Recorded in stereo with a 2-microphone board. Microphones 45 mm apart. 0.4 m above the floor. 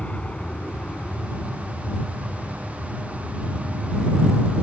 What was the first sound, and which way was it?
An aircraft, 35° left (ahead or behind).